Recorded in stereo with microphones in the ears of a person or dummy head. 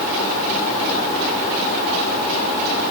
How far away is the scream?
No scream in this recording.